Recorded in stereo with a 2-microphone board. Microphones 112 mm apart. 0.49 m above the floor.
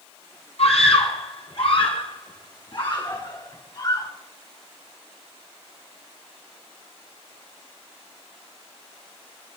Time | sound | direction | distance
0.6 | a scream | 65° left (ahead or behind) | 6 m